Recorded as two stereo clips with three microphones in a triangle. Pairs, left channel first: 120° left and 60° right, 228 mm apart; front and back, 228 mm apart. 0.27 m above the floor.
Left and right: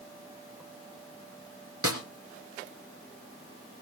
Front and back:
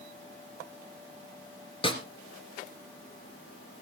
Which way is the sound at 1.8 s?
70° right.